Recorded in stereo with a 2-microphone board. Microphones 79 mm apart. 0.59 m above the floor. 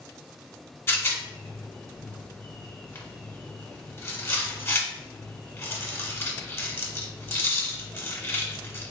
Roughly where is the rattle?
Left.